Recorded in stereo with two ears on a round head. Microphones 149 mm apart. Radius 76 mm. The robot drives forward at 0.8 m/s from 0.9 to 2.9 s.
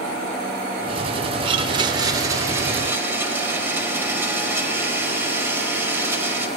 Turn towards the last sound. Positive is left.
turn(degrees=-15)  # may be behind; listen again after turning